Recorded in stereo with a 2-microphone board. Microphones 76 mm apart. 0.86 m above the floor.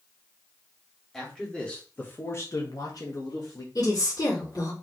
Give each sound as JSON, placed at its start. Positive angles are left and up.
{"t": 1.1, "sound": "a man speaking", "side_deg": 5, "distance_m": 2.5}
{"t": 3.8, "sound": "a woman speaking", "side_deg": 60, "distance_m": 2.5}